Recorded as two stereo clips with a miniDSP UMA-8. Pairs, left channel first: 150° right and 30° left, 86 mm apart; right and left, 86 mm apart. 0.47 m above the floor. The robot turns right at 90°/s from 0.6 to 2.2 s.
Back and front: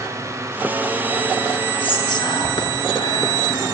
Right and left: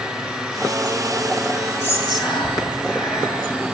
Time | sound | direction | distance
1.8 | whispering | 160° right | 7 m